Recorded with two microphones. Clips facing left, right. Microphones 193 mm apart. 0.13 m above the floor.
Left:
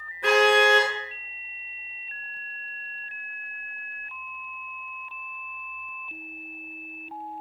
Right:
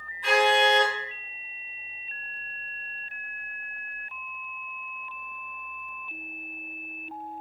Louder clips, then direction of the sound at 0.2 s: Left 3 dB; 65° left (ahead or behind).